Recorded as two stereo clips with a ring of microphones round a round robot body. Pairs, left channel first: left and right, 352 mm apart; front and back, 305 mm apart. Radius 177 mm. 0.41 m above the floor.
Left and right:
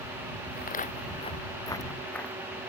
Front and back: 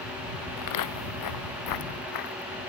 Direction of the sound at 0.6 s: 25° left.